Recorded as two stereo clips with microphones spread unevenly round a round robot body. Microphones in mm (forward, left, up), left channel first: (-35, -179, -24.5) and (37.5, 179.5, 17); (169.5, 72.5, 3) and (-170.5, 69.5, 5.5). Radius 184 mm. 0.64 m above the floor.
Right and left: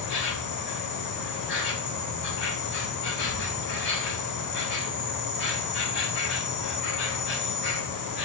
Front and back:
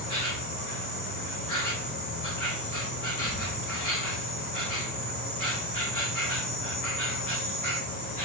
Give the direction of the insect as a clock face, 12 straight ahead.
1 o'clock.